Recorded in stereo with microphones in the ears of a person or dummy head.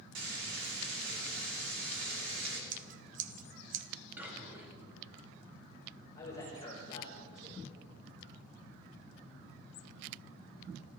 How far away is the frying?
About 2.5 m.